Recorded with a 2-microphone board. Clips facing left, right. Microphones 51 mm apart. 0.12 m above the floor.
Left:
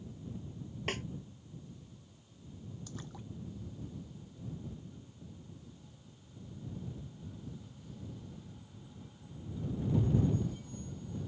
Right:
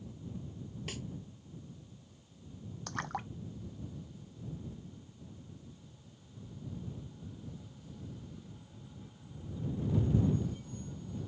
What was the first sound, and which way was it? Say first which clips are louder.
A snare drum: left 8 dB; 45° left (ahead or behind).